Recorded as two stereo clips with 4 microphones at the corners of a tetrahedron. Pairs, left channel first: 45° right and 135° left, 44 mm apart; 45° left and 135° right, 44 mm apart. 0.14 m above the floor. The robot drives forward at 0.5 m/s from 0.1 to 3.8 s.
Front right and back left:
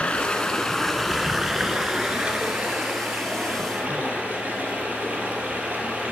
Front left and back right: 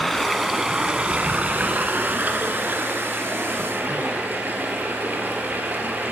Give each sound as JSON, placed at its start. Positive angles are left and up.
{"t": 0.0, "sound": "running water", "azimuth_deg": -35, "distance_m": 0.7}